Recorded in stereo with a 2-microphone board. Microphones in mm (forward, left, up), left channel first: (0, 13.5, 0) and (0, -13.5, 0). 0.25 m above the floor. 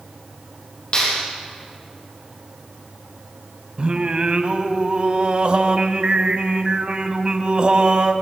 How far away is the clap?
About 7 m.